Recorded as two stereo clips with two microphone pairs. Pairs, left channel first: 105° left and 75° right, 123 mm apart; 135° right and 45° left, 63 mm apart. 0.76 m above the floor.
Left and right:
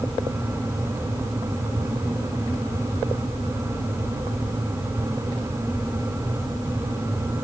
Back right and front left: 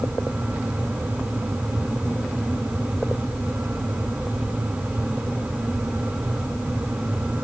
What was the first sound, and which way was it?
Only background noise.